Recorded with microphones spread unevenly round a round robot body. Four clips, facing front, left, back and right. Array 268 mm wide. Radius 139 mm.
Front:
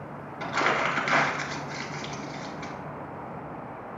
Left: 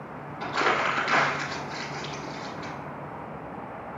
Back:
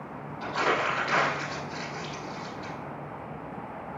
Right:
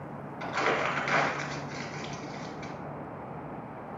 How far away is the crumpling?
About 2 m.